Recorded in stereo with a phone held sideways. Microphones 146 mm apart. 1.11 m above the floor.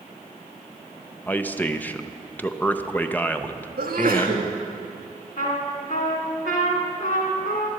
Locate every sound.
1.3 s a man speaking: 10° left (ahead or behind), 0.5 m
3.8 s a sneeze: 85° right, 1.7 m
5.4 s a trumpet: 65° left (ahead or behind), 2.0 m